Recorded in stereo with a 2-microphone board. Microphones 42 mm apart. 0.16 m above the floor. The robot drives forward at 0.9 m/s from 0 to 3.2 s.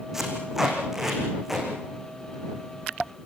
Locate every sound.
0.1 s tape being pulled: 10° right (ahead or behind), 6.5 m